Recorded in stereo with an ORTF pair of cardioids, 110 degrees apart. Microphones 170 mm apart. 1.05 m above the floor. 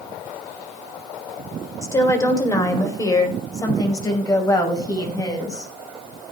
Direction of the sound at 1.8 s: 20° left.